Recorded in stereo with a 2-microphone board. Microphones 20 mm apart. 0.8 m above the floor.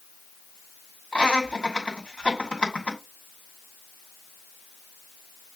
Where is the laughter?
70° left (ahead or behind), 2 m.